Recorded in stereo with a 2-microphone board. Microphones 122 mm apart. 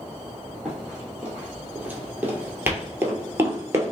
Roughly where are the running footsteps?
Centre.